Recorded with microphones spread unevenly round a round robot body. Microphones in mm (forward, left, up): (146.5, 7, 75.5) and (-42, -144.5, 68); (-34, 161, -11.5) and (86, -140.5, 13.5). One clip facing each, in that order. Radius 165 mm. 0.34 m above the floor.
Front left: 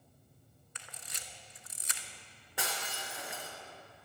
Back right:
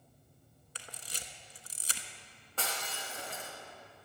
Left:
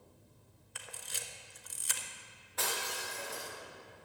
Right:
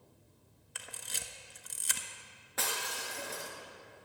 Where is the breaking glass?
40° right, 3 m.